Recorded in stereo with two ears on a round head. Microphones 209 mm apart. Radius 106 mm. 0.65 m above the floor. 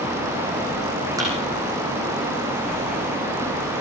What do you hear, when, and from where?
1.2 s a thud: 15° right (ahead or behind), 7.5 m